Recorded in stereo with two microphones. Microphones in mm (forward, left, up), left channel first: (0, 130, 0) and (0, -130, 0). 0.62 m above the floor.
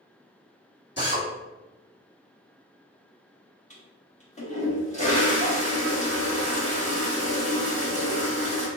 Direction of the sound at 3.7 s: 30° left (ahead or behind).